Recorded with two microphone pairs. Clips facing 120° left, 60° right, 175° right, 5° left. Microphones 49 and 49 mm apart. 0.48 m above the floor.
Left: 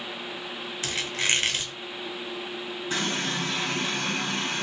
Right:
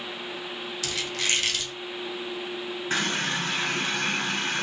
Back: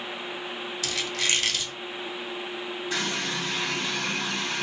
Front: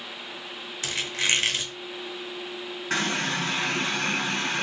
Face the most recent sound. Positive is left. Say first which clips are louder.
# right 2 dB, front 4 dB
turn(degrees=-20)